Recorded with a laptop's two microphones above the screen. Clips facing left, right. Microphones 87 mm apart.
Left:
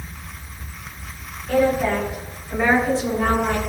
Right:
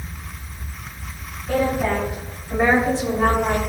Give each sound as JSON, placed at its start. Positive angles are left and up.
{"t": 1.5, "sound": "a woman speaking", "side_deg": -10, "distance_m": 5.0}